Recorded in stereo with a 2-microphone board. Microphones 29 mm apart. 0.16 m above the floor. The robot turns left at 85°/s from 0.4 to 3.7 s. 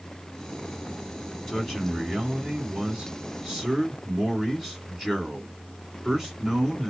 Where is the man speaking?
45° left, 1.8 m; by 6.9 s 145° right, 1.8 m.